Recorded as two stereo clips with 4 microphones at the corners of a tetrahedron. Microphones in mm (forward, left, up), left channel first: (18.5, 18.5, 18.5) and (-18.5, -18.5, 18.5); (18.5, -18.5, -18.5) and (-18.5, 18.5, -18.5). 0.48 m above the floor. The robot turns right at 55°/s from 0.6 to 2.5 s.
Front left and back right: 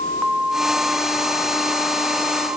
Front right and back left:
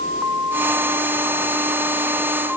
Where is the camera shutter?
I don't hear a camera shutter.